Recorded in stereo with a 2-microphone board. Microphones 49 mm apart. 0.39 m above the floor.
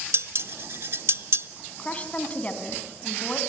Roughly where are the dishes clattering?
Right.